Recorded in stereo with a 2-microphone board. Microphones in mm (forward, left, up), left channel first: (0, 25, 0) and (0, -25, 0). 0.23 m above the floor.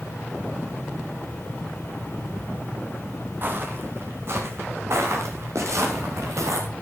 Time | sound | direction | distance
3.4 | footsteps | 40° right (ahead or behind) | 3.5 m